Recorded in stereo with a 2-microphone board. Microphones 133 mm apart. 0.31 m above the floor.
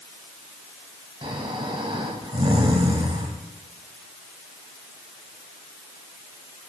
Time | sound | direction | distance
1.2 | snoring | 40° right (ahead or behind) | 1.3 m